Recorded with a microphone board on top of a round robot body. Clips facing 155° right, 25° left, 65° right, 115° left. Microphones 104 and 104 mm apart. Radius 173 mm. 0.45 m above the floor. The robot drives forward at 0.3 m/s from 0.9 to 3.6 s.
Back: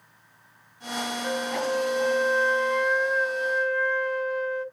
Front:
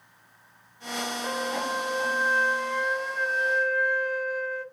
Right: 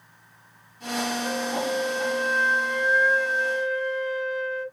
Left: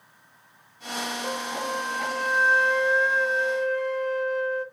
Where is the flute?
85° left, 0.9 m; by 4.7 s 130° left, 1.1 m.